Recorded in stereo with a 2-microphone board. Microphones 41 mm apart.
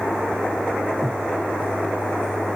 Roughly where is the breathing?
Centre.